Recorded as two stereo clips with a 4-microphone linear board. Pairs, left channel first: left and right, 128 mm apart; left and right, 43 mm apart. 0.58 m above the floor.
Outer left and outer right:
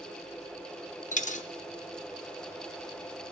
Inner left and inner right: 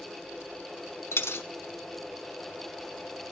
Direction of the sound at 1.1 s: 70° left (ahead or behind).